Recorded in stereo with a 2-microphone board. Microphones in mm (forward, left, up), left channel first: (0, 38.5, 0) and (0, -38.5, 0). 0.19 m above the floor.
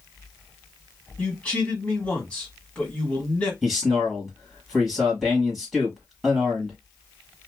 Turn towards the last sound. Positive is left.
turn(degrees=0)  # may be behind; listen again after turning